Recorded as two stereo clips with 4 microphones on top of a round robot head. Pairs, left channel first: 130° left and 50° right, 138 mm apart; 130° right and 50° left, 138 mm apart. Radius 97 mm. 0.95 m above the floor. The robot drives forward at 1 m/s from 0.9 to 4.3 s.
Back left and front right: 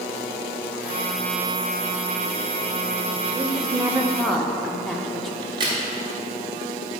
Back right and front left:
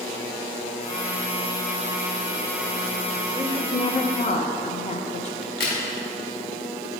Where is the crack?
110° right, 1.7 m.